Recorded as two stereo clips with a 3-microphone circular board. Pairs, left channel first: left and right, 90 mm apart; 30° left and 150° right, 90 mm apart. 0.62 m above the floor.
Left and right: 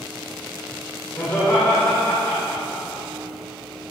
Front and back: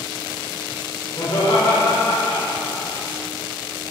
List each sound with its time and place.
1.2 s laughter: 45° left, 1.7 m